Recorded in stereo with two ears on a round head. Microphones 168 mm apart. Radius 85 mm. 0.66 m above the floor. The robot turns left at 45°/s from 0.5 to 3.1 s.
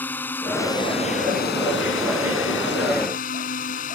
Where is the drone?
10° left (ahead or behind); by 4.0 s 45° left (ahead or behind).